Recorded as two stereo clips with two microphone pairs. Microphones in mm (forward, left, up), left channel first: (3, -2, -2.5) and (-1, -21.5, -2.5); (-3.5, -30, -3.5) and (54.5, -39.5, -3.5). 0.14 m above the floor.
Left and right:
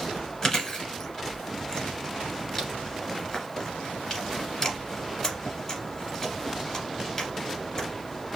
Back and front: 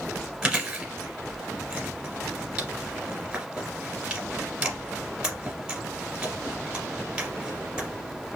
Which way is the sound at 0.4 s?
35° left.